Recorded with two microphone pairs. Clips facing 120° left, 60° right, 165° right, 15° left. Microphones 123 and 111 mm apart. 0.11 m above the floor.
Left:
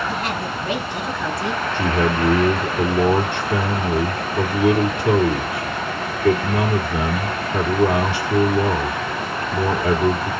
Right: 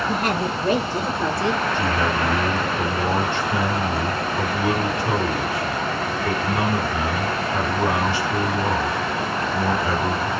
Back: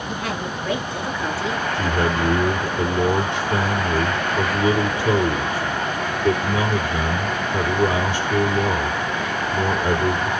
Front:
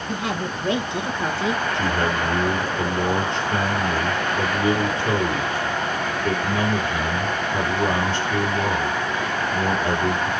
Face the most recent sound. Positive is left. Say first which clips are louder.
# left 2 dB, back 1 dB
turn(degrees=120)